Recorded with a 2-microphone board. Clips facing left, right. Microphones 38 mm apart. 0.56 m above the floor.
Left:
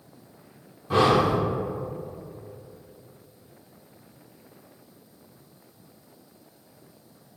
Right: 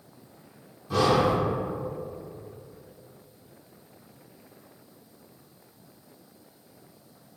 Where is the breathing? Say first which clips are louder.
Left 2 dB; 30° left (ahead or behind), 0.8 m.